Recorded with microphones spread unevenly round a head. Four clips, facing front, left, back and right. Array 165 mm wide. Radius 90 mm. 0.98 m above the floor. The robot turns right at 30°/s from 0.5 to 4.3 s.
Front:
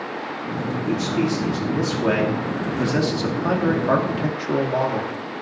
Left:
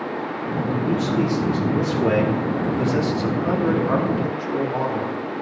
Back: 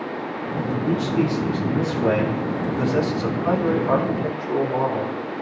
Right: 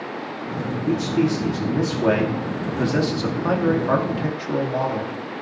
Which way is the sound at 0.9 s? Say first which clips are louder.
Right 3 dB, even; 130° right.